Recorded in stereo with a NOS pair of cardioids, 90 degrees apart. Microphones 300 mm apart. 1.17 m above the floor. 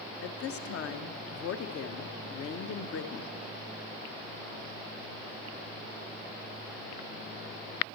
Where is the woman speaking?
50° left, 0.7 m.